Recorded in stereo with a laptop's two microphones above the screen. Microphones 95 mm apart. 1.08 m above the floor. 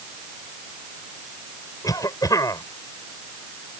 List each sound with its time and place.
1.8 s a cough: 40° left (ahead or behind)